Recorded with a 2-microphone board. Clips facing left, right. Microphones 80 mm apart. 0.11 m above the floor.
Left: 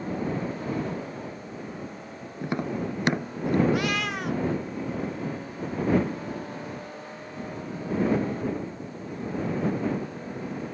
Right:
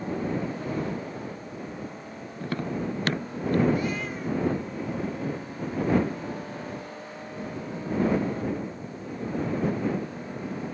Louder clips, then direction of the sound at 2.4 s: Left 1 dB; 20° left (ahead or behind).